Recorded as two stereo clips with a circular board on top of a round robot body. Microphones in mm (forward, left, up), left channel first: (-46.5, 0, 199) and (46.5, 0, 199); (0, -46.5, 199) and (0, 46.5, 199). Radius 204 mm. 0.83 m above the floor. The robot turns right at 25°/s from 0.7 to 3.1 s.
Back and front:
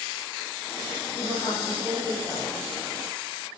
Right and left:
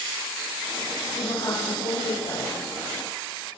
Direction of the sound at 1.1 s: 135° right.